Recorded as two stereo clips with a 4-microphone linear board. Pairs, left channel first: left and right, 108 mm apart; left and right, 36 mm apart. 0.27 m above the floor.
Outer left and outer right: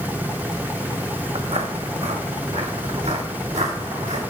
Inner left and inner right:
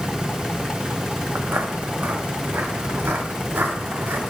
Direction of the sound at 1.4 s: 70° right (ahead or behind).